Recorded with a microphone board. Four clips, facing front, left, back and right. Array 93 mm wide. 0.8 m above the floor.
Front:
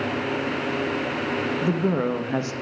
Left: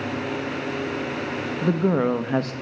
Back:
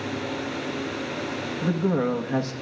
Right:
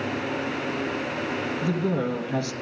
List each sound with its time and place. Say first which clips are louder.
1.6 s a woman speaking: left 7 dB, back 2 dB; 80° left, 0.7 m